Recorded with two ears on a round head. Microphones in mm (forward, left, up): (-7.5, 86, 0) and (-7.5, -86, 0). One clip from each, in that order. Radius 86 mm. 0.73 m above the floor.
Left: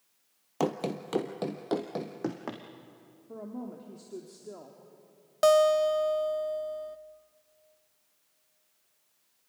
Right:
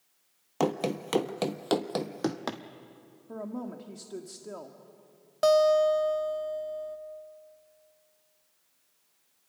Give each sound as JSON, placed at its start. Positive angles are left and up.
{"t": 0.6, "sound": "running footsteps", "side_deg": -5, "distance_m": 1.0}
{"t": 3.3, "sound": "a woman speaking", "side_deg": -55, "distance_m": 1.6}
{"t": 5.4, "sound": "a guitar", "side_deg": 20, "distance_m": 0.9}